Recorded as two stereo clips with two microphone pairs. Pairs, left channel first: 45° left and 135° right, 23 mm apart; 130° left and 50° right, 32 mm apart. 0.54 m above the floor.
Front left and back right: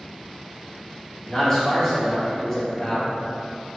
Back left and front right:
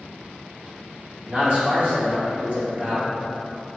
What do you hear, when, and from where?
1.3 s a man speaking: 10° right, 1.6 m